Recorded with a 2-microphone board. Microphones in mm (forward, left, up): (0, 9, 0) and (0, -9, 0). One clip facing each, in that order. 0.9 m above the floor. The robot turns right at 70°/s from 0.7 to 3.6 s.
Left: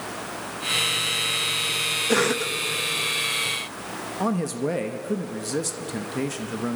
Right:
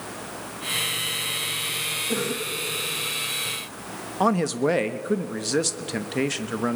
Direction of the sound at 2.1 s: 70° left.